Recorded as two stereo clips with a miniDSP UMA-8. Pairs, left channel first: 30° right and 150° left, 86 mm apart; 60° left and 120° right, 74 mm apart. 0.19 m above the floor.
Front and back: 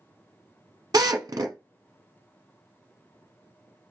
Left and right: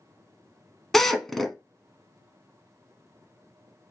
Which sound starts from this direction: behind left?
A drill, at 0.9 s.